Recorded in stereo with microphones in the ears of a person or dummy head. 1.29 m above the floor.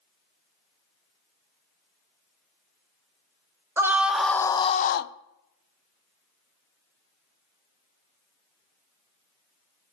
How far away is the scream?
About 0.9 m.